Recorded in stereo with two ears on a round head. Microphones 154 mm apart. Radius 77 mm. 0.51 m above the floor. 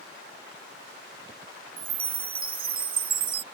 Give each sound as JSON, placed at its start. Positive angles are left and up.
{"t": 1.8, "sound": "a chime", "side_deg": -30}